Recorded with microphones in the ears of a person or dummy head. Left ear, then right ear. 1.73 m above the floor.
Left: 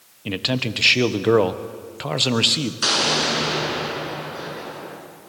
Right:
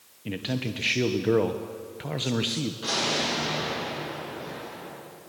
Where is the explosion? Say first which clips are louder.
Left 7 dB; 70° left (ahead or behind), 7.5 m.